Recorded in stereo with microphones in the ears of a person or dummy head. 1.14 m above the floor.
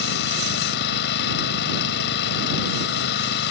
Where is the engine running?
55° left (ahead or behind).